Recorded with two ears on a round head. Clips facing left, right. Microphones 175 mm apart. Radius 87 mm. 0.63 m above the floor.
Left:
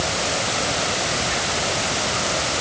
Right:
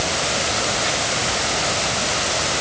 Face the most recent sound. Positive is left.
No sound to turn to.